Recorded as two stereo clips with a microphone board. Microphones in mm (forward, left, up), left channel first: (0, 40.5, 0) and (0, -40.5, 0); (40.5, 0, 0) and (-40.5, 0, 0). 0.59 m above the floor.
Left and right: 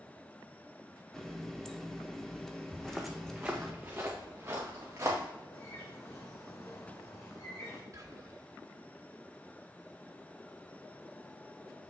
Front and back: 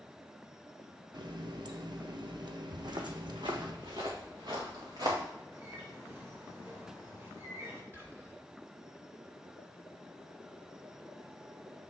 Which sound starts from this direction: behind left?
A bird, at 5.5 s.